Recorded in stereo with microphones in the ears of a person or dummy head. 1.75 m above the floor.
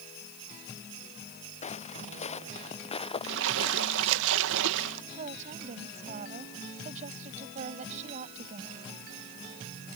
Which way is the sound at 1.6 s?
35° left (ahead or behind).